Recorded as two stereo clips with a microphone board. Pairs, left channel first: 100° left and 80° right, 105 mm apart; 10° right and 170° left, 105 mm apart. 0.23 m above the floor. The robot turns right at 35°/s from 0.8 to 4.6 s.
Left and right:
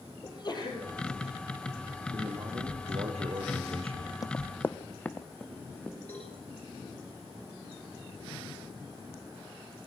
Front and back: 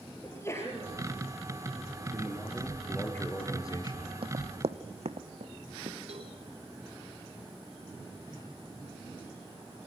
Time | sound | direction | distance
0.2 | a sneeze | 55° left | 4.5 m
2.1 | a man speaking | 120° right | 4.5 m
4.2 | running footsteps | 155° left | 0.6 m
6.1 | a cowbell | 170° left | 9.5 m